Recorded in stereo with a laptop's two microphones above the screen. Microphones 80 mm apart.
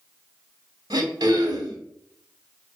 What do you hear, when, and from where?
0.9 s throat clearing: 60° right (ahead or behind), 2.5 m